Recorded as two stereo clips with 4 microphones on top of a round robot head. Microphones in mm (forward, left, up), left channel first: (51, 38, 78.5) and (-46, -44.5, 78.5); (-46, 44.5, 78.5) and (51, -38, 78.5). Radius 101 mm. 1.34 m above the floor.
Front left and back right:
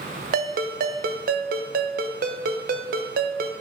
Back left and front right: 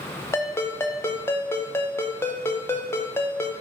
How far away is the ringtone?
About 0.5 m.